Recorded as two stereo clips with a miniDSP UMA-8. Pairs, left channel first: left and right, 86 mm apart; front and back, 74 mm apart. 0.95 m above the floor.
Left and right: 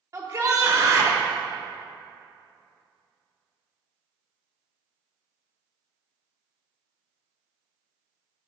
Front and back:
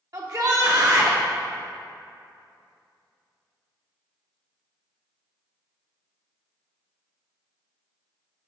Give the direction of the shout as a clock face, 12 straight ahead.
5 o'clock.